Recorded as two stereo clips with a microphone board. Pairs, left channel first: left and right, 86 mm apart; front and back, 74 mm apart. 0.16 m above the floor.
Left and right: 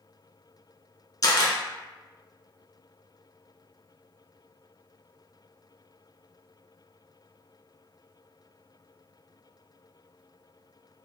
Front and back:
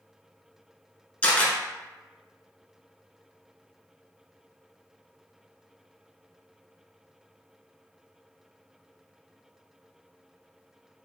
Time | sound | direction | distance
1.2 | a camera shutter | 65° left | 0.7 m